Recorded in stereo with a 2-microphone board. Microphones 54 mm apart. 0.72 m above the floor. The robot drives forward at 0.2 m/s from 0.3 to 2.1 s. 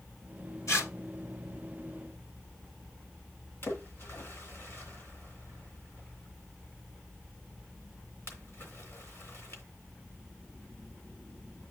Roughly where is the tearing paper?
Left.